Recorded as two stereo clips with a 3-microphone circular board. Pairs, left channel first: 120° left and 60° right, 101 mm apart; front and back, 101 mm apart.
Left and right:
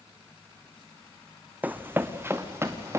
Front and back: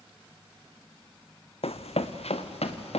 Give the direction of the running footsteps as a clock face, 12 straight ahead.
12 o'clock.